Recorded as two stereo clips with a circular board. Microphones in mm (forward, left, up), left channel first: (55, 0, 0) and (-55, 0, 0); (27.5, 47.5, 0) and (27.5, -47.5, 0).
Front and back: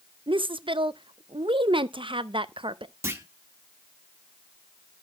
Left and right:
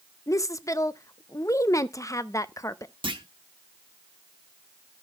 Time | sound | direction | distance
0.3 | a woman speaking | 140° left | 0.6 m
3.0 | a clunk | 115° right | 1.2 m